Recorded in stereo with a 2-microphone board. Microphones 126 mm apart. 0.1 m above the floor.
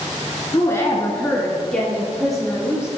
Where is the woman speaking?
25° left (ahead or behind), 1.3 m; by 2.9 s 5° right (ahead or behind), 3.5 m.